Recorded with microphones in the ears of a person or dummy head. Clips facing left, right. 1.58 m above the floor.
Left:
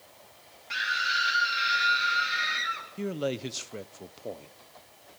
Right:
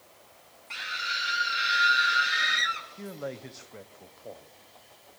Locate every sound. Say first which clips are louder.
0.7 s a scream: left 5 dB; 10° left (ahead or behind), 2.5 m; by 2.9 s 15° right (ahead or behind), 4 m
3.0 s a man speaking: left 7 dB; 45° left (ahead or behind), 0.8 m